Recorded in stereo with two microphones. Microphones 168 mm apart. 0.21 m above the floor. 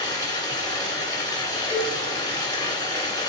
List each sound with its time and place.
0.0 s running water: 25° left (ahead or behind), 1.5 m
1.7 s a cowbell: 30° left (ahead or behind), 1.8 m